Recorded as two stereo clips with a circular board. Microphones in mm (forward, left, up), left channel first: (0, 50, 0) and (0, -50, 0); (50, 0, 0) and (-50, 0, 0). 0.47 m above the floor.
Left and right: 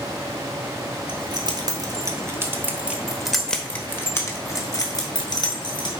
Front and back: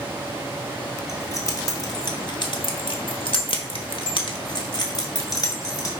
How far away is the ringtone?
I don't hear a ringtone.